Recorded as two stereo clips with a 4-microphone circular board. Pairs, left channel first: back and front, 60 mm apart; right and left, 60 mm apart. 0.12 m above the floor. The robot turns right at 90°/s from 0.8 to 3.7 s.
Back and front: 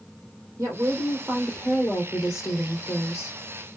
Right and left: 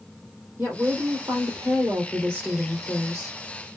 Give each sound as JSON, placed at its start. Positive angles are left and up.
{"t": 0.6, "sound": "a woman speaking", "azimuth_deg": 25, "distance_m": 4.0}